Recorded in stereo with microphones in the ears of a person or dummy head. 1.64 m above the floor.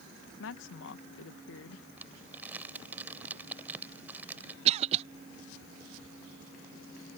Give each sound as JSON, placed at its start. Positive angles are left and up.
{"t": 0.4, "sound": "a woman speaking", "side_deg": 70}
{"t": 2.0, "sound": "crumpling", "side_deg": -10}
{"t": 4.7, "sound": "a cough", "side_deg": -35}